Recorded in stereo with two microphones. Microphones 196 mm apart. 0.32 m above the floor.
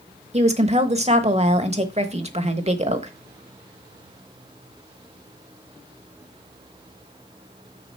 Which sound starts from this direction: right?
A woman speaking, at 0.3 s.